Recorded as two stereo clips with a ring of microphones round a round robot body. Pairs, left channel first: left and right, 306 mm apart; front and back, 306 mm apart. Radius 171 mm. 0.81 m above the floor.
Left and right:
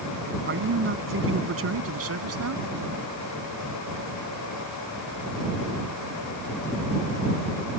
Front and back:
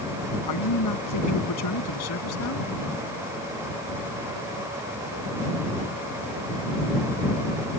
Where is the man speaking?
35° right; by 2.6 s 50° right.